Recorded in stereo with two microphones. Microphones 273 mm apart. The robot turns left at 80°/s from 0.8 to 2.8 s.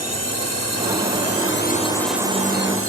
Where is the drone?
65° left (ahead or behind); by 2.9 s 55° right (ahead or behind).